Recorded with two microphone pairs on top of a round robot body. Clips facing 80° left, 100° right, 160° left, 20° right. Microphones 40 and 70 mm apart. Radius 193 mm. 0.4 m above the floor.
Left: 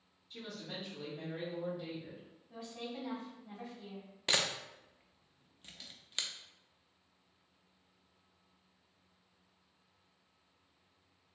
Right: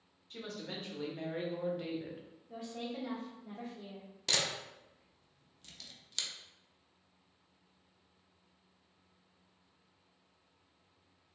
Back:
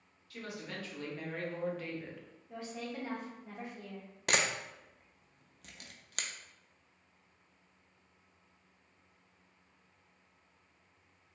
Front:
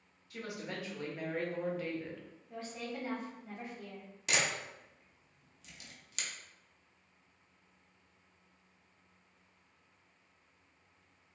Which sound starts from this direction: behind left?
A camera shutter, at 4.3 s.